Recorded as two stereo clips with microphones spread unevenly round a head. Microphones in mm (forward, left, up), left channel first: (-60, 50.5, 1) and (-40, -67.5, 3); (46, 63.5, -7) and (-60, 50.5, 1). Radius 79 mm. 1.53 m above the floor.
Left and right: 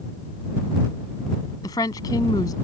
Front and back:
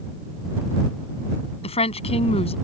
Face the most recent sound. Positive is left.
turn(degrees=30)